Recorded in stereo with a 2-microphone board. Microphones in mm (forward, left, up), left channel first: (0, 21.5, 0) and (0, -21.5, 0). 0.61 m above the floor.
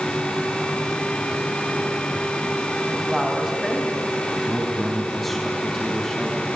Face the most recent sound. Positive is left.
turn(degrees=5)  # may be behind; listen again after turning